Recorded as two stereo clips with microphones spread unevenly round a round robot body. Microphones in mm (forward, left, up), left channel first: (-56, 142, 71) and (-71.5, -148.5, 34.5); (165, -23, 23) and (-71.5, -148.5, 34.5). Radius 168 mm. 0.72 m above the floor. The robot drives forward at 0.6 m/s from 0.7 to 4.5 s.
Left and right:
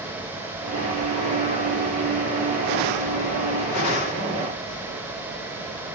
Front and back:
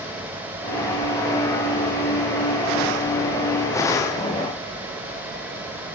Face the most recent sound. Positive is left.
No sound to turn to.